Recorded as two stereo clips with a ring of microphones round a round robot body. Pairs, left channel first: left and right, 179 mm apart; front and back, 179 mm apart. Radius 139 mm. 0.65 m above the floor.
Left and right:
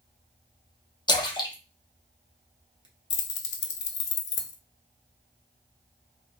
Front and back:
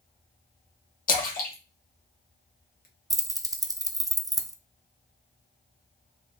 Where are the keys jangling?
105° left, 0.5 m.